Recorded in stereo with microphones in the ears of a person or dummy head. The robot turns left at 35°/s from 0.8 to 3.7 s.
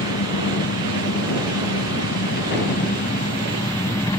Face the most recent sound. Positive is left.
turn(degrees=20)